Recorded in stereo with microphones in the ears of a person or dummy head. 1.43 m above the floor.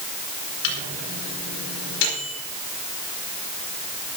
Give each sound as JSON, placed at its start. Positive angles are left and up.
{"t": 0.6, "sound": "a microwave", "side_deg": 65, "distance_m": 4.5}